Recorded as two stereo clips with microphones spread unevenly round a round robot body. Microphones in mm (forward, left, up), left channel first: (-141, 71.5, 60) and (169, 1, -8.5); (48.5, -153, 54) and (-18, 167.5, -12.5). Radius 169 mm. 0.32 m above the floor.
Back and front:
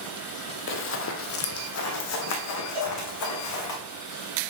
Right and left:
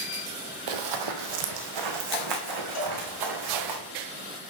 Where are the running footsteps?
115° left, 0.9 m; by 3.8 s 130° left, 2.5 m.